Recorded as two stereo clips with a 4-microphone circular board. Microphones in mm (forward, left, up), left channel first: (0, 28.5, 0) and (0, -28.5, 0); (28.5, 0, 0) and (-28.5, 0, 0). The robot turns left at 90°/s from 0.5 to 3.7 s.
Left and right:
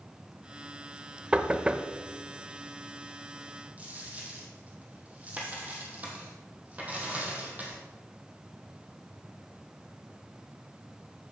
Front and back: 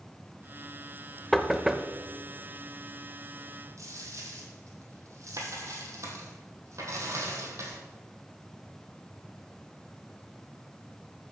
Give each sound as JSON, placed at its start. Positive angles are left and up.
{"t": 1.3, "sound": "knocking", "azimuth_deg": -80, "distance_m": 0.6}
{"t": 3.8, "sound": "a dropped coin", "azimuth_deg": -155, "distance_m": 2.5}